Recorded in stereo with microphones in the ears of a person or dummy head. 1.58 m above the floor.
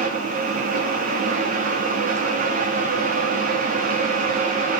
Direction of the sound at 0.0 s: 45° right (ahead or behind).